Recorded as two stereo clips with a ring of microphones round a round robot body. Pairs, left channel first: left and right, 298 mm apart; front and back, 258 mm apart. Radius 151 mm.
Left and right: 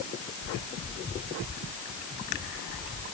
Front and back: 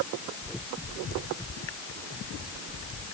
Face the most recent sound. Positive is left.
No sound to turn to.